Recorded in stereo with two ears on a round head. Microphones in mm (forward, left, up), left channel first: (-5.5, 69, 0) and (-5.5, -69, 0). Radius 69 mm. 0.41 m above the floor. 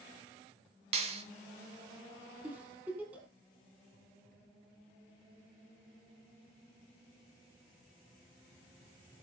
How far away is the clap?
About 3 m.